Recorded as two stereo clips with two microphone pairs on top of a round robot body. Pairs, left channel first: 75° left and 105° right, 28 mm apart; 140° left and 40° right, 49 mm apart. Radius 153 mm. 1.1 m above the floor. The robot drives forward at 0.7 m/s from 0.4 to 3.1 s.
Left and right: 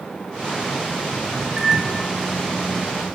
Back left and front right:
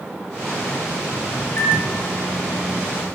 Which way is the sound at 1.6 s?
Straight behind.